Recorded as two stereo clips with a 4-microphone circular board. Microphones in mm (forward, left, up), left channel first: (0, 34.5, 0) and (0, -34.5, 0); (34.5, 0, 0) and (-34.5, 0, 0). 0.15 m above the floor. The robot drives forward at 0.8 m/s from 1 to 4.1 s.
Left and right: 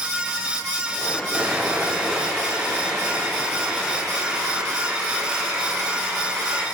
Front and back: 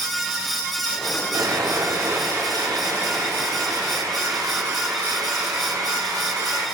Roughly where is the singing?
I don't hear singing.